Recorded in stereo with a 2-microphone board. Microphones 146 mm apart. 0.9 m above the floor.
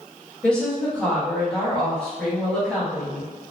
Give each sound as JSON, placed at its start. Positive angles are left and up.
{"t": 0.4, "sound": "a woman speaking", "side_deg": 5, "distance_m": 1.5}